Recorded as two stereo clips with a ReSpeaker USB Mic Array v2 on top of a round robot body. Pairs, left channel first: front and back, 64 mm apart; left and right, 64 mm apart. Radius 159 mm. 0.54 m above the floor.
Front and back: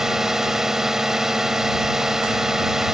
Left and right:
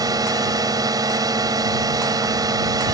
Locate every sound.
0.0 s a drone: 95° right